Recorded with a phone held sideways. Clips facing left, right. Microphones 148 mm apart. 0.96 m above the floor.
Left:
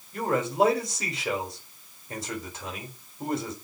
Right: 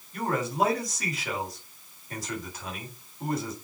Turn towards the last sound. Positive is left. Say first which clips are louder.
# left 3 dB
turn(degrees=25)  # may be behind; listen again after turning